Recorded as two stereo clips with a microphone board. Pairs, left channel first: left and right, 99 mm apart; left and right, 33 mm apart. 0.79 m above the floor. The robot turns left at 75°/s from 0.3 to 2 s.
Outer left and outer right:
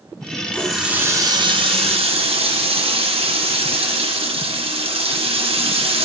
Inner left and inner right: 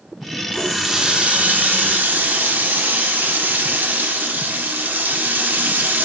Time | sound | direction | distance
0.5 | a running tap | 15° left | 1.1 m